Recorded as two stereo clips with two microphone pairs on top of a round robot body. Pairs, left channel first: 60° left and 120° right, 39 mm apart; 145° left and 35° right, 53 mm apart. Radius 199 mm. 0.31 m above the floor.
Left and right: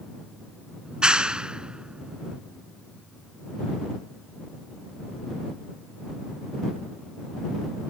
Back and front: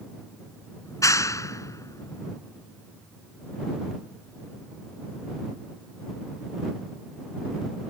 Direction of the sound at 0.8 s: 170° left.